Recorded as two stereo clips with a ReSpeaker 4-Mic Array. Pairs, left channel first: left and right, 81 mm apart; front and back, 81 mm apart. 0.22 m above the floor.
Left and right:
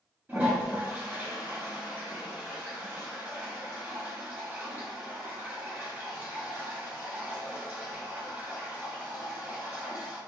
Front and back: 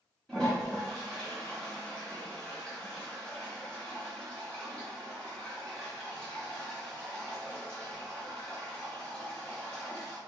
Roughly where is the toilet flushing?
Right.